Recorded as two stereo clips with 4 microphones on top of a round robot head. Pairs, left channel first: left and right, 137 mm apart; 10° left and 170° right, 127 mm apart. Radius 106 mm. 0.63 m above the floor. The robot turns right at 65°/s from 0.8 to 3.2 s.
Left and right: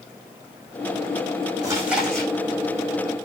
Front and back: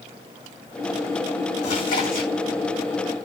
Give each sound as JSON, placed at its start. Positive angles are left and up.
{"t": 1.6, "sound": "chewing", "azimuth_deg": -25, "distance_m": 6.5}